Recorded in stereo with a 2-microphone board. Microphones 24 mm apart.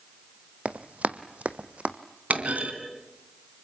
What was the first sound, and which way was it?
Running footsteps, 55° right (ahead or behind).